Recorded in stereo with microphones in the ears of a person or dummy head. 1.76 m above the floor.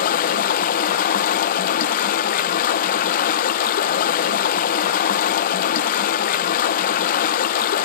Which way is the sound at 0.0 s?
45° left (ahead or behind).